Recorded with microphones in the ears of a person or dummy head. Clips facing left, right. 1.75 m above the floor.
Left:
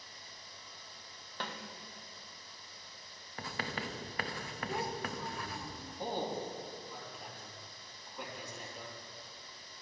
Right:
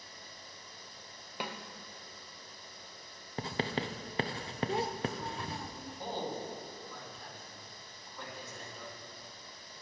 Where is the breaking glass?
No breaking glass in this recording.